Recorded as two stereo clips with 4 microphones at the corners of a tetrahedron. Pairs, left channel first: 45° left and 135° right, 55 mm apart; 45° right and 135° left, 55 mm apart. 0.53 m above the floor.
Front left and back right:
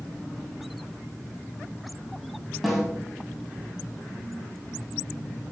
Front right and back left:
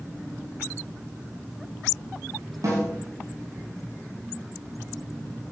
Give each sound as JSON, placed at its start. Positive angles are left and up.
{"t": 2.6, "sound": "a snare drum", "azimuth_deg": 135, "distance_m": 4.5}